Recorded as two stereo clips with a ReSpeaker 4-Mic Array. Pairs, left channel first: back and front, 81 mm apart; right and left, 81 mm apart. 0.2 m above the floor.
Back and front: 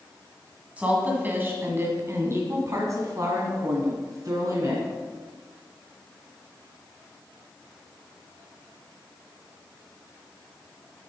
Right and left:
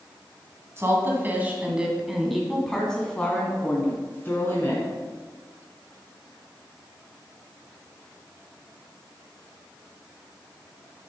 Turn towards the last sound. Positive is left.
turn(degrees=-35)